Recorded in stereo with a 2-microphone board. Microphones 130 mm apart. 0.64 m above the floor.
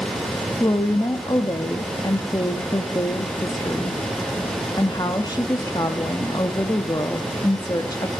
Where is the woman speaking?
30° left (ahead or behind), 0.6 m.